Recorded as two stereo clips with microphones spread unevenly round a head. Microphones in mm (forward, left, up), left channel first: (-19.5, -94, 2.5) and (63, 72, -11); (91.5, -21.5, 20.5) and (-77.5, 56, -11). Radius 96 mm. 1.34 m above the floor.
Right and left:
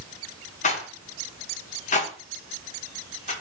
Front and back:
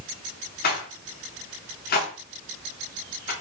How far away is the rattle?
About 0.9 m.